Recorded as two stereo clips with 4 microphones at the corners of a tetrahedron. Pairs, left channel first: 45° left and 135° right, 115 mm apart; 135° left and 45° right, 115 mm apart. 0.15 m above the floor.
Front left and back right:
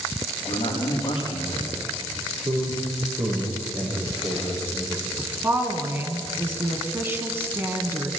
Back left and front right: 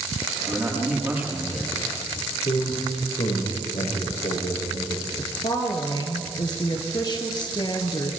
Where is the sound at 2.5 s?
170° left, 7.5 m.